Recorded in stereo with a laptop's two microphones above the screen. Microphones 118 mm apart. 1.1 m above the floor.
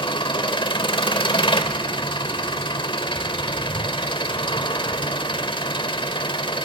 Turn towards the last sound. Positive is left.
turn(degrees=40)  # may be behind; listen again after turning